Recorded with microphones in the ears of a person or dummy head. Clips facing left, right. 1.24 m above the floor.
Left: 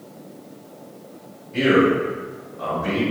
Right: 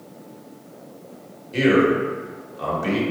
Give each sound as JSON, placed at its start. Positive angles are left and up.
{"t": 1.5, "sound": "a man speaking", "side_deg": -50, "distance_m": 1.8}